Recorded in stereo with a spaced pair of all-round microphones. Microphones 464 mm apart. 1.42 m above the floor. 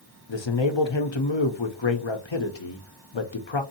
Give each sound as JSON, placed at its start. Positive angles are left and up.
{"t": 0.3, "sound": "a man speaking", "side_deg": 70, "distance_m": 0.8}